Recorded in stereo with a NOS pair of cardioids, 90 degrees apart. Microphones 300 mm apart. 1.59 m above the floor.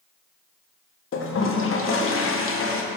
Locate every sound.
1.1 s a toilet flushing: 45° left, 1.4 m